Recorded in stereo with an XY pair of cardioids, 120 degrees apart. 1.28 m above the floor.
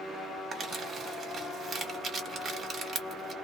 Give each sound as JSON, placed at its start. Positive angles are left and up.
{"t": 0.5, "sound": "crumpling", "azimuth_deg": -45, "distance_m": 1.2}